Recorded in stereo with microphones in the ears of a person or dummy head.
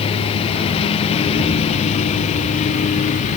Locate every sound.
0.0 s a lawn mower: 30° left (ahead or behind); by 3.4 s 40° left (ahead or behind)